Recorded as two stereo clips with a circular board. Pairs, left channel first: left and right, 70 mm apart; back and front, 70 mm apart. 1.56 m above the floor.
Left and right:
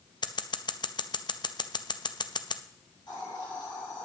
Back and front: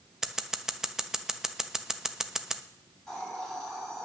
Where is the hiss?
95° left, 7.5 m.